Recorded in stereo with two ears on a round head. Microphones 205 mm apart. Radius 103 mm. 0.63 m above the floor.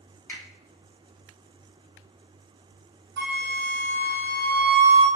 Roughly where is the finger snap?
Centre.